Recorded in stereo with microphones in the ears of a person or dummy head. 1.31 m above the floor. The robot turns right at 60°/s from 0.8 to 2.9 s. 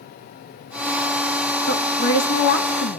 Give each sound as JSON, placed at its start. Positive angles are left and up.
{"t": 1.7, "sound": "a woman speaking", "azimuth_deg": 45, "distance_m": 2.5}